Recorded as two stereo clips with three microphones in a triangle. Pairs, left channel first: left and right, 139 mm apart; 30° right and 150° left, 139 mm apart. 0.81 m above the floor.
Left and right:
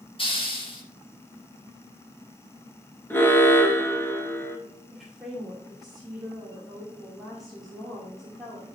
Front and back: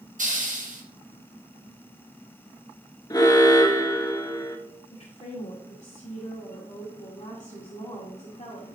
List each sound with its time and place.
0.2 s a hiss: 135° left, 1.6 m
3.1 s an alarm: 20° left, 1.1 m
4.9 s a woman speaking: straight ahead, 1.9 m